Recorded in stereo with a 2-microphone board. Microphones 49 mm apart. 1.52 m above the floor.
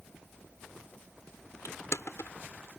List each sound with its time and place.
1.6 s crushing: 80° left